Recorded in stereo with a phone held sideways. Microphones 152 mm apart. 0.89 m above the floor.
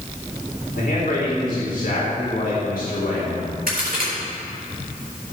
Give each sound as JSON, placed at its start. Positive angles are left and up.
{"t": 0.8, "sound": "a man speaking", "side_deg": 70, "distance_m": 3.5}
{"t": 3.7, "sound": "a crack", "side_deg": -75, "distance_m": 4.0}